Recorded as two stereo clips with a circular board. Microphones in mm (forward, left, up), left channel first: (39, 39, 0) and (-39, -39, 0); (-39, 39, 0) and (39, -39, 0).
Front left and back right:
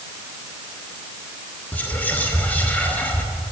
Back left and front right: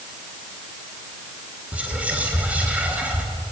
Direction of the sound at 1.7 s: Straight ahead.